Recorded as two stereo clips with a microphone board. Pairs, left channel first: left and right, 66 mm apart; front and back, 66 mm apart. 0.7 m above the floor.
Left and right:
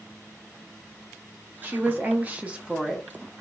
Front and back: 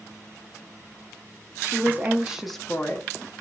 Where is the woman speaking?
140° right, 1.0 m; by 3.1 s 5° right, 0.7 m.